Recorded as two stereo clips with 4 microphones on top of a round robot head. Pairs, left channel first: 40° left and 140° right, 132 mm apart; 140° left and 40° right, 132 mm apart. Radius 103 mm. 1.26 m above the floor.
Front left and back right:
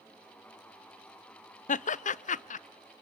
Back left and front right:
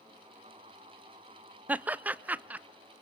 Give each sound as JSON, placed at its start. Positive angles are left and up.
{"t": 1.7, "sound": "laughter", "azimuth_deg": 40, "distance_m": 0.5}